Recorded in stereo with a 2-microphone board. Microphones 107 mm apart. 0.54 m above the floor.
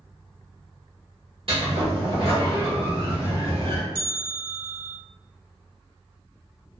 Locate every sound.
1.5 s a sliding door: 60° right (ahead or behind), 1.1 m
4.0 s a bell: 25° right (ahead or behind), 0.6 m